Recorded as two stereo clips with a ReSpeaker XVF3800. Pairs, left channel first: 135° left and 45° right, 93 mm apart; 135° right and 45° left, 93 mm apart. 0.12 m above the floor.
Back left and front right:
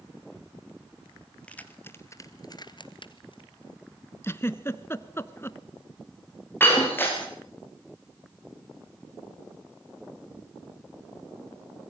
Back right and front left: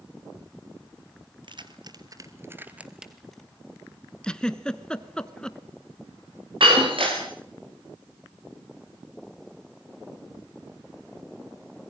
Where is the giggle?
150° left, 0.9 m.